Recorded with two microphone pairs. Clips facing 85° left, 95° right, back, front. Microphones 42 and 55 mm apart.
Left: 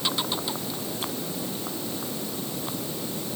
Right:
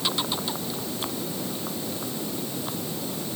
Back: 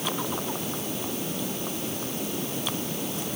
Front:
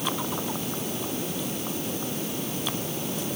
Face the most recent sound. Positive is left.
No sound to turn to.